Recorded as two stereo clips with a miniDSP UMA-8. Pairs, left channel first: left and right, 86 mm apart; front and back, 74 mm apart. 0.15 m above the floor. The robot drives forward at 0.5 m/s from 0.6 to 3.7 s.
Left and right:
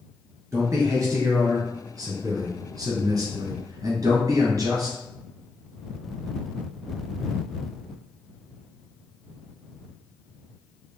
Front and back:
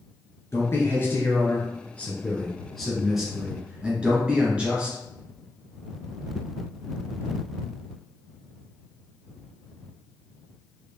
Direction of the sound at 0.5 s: 45° right.